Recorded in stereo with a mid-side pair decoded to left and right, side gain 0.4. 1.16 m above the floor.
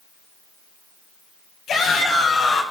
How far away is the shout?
About 8.5 m.